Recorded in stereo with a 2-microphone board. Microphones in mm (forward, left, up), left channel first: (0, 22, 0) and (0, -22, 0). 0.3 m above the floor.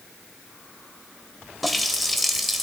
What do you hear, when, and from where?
1.6 s a running tap: centre (ahead or behind), 0.6 m